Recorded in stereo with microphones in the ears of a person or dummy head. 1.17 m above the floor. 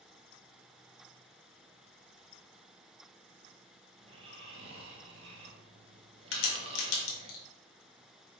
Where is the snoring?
35° right (ahead or behind), 1.0 m.